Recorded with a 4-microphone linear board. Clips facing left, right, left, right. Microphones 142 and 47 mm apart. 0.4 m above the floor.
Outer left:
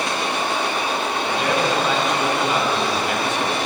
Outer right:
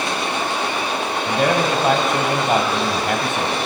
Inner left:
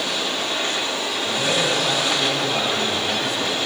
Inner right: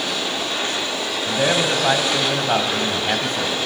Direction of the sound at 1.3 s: 55° right (ahead or behind).